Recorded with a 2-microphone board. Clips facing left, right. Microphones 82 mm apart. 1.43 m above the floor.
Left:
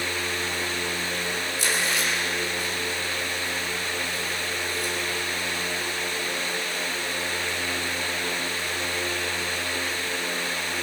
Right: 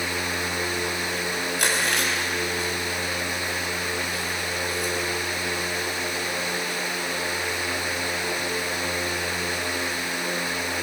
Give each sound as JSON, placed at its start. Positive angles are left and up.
{"t": 1.6, "sound": "chewing", "side_deg": -70, "distance_m": 6.5}